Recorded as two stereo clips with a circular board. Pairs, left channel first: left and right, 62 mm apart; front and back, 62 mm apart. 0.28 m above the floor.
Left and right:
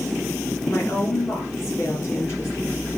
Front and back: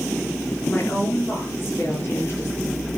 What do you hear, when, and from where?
0.7 s a woman speaking: 55° left, 4.5 m; by 2.9 s 50° left, 6 m